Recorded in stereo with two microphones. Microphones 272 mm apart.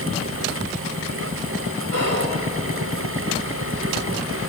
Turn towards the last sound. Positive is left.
turn(degrees=-60)  # may be behind; listen again after turning